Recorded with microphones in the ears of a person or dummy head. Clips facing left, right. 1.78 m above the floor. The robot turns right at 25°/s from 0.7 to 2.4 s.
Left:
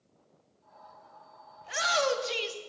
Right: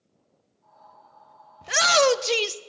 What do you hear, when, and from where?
1.6 s a shout: 85° right, 0.7 m; by 2.6 s 70° right (ahead or behind), 0.7 m